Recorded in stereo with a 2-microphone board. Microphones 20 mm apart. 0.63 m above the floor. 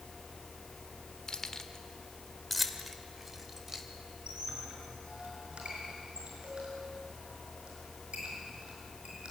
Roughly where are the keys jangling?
Left.